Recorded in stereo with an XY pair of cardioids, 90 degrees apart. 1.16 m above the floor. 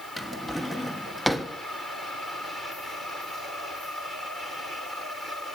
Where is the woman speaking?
I don't hear a woman speaking.